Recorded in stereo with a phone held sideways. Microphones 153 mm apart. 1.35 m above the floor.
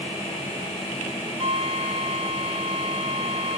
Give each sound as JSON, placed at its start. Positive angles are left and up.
{"t": 1.4, "sound": "a flute", "side_deg": -45}